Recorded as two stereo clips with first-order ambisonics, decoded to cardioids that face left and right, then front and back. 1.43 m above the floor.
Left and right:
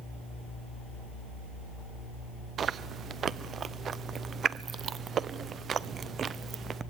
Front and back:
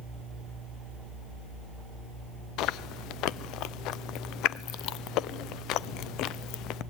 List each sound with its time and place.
2.6 s chewing: 30° right, 0.5 m